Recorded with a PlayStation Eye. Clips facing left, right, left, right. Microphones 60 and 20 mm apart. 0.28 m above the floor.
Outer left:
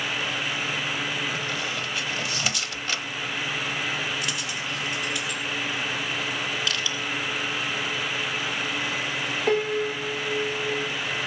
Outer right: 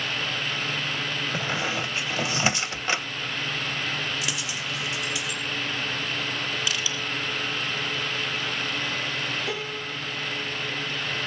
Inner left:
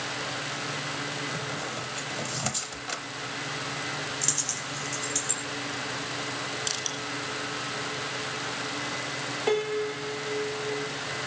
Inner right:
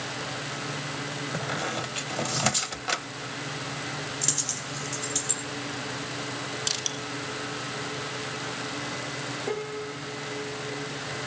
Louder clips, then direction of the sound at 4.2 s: Outer left 1 dB, even; 5° right (ahead or behind).